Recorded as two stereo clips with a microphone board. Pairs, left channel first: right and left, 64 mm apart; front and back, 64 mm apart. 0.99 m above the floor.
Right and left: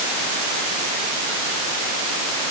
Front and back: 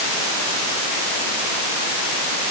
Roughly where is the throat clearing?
I don't hear throat clearing.